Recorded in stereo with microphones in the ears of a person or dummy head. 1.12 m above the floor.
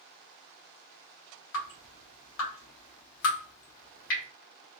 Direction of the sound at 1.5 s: 65° left (ahead or behind).